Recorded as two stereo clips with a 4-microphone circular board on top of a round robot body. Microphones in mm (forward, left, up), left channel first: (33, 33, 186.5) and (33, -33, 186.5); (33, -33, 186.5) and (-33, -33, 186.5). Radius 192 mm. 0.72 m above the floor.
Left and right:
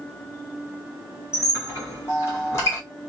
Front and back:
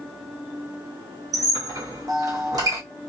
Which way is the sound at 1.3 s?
145° left.